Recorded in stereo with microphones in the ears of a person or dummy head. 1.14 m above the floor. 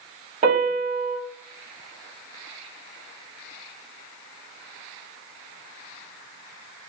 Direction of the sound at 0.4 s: 45° right (ahead or behind).